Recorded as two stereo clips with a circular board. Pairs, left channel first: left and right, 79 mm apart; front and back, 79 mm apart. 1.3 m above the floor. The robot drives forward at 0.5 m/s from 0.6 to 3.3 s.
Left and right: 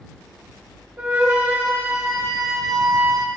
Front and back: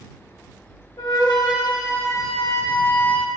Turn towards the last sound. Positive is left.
turn(degrees=-75)